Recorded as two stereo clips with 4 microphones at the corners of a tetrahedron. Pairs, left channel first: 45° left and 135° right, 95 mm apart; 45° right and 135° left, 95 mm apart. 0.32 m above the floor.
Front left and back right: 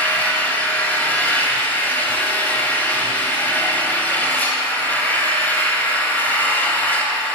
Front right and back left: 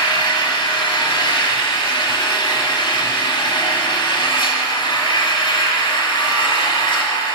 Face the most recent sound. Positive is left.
turn(degrees=-25)